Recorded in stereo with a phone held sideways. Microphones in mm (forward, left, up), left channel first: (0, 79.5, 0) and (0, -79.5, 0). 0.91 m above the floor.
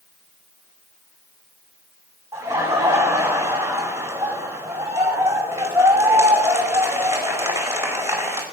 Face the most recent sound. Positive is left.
turn(degrees=-15)  # may be behind; listen again after turning